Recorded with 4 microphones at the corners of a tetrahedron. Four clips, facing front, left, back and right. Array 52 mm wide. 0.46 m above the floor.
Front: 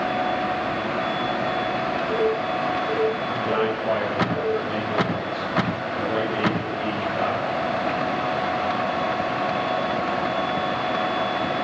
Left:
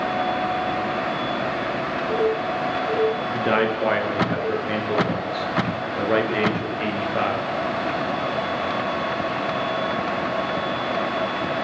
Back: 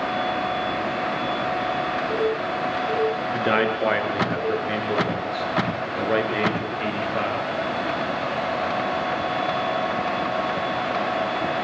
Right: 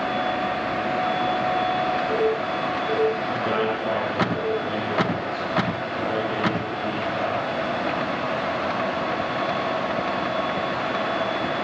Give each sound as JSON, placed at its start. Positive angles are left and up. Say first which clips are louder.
{"t": 3.3, "sound": "a man speaking", "louder": "left 3 dB, back 2 dB", "azimuth_deg": 150, "distance_m": 5.5}